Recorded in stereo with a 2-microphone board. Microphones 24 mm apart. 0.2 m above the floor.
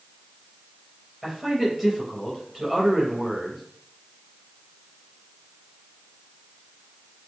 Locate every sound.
1.2 s a man speaking: 15° right (ahead or behind), 4 m